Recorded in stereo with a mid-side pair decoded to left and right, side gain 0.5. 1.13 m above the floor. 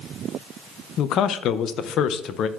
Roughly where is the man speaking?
Ahead left.